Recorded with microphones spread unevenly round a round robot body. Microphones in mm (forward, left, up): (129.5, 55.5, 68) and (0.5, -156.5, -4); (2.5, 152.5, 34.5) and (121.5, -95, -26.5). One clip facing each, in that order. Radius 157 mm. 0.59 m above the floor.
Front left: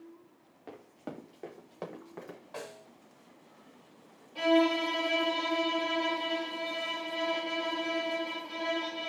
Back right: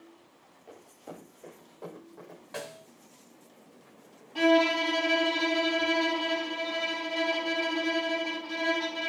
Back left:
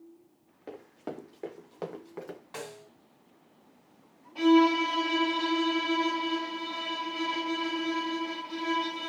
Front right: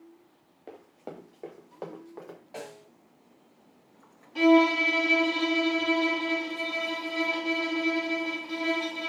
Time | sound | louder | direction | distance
0.7 | running footsteps | front left 3 dB, back left 3 dB | 45° left | 4.5 m
2.5 | a snare drum | back right 4 dB, front right 2 dB | 175° right | 1.7 m
4.3 | a violin | back right 2 dB, front right 1 dB | 110° right | 3.5 m